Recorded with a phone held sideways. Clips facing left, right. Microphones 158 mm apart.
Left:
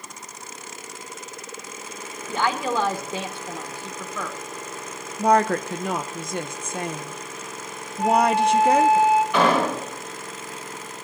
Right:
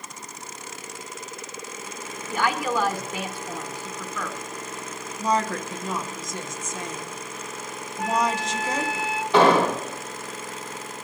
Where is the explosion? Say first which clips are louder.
Right 3 dB; 30° right (ahead or behind), 7 m.